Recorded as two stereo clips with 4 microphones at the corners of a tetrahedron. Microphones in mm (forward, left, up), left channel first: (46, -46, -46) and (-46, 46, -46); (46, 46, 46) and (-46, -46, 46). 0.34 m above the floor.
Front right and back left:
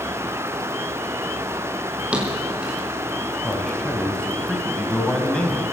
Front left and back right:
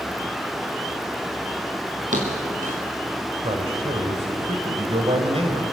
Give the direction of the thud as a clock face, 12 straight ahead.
5 o'clock.